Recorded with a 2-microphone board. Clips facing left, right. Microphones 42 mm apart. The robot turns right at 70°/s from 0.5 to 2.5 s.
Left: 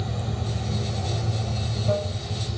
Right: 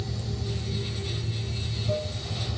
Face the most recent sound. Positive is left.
turn(degrees=175)